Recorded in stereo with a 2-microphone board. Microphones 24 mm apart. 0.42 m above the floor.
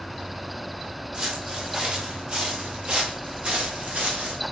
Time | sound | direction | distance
1.1 | footsteps | 40° right (ahead or behind) | 7 m